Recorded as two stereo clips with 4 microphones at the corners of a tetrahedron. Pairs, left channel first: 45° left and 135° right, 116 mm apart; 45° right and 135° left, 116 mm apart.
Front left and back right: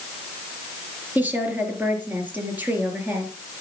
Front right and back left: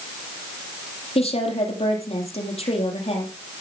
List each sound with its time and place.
1.1 s a woman speaking: 60° right, 4 m